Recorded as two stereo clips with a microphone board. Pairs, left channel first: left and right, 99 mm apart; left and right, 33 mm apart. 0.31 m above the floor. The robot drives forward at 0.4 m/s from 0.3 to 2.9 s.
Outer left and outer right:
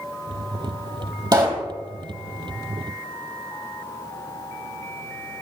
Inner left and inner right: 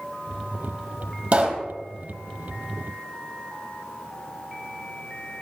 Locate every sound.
1.3 s a pop: 45° right (ahead or behind), 1.9 m; by 1.7 s 40° right (ahead or behind), 2.0 m